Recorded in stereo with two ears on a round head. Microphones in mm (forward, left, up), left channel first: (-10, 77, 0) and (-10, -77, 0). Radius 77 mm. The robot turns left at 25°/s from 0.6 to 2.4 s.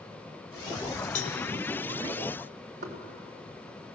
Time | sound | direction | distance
1.1 | a cowbell | 45° left (ahead or behind) | 1.4 m
2.8 | knocking | 60° right (ahead or behind) | 3.5 m